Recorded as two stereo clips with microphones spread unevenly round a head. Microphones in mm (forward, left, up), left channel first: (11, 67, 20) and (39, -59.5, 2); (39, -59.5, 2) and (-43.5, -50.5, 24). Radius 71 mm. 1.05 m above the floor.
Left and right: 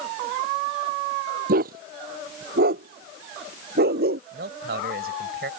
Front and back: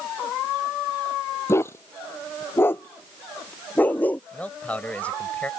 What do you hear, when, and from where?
1.5 s a dog barking: 65° right; by 4.2 s 80° right
4.3 s a man speaking: 80° right